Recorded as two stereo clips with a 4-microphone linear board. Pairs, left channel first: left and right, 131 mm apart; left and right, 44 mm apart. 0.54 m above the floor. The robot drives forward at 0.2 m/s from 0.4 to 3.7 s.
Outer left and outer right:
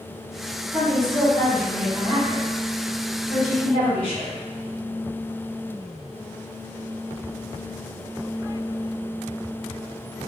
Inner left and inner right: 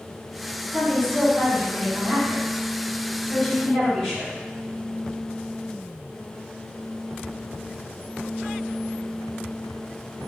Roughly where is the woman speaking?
Centre.